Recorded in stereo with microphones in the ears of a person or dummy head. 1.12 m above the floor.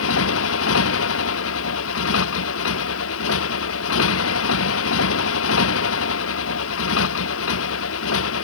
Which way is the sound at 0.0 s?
85° left.